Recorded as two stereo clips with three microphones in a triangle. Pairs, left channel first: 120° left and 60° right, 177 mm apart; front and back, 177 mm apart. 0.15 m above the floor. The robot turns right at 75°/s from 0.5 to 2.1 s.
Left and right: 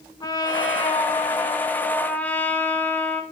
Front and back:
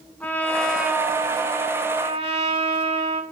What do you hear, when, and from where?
0.2 s a trumpet: 75° left, 0.7 m; by 3.2 s 165° right, 0.7 m